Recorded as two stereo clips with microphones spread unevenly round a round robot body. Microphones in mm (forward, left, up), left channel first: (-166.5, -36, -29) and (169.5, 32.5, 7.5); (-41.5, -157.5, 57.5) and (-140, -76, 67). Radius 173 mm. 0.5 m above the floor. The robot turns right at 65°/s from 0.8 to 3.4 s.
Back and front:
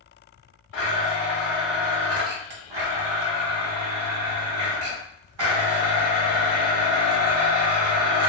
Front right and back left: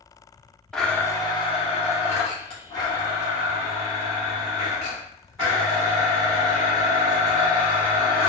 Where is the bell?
No bell in this recording.